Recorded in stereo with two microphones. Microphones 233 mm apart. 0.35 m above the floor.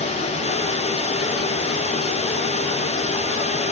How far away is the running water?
About 0.9 m.